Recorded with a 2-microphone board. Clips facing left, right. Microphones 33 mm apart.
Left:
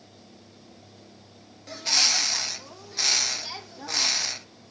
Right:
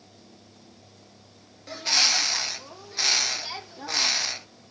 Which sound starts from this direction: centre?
A bird, at 1.7 s.